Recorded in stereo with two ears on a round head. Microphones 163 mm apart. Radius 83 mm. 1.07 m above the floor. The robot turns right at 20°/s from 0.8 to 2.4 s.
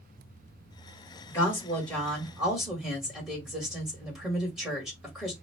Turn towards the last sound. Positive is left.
turn(degrees=-5)  # may be behind; listen again after turning